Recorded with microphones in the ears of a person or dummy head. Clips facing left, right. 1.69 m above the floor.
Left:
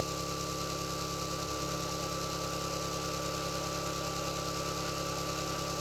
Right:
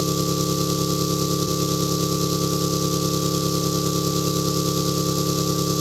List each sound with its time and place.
0.0 s an engine running: 65° right (ahead or behind), 1.0 m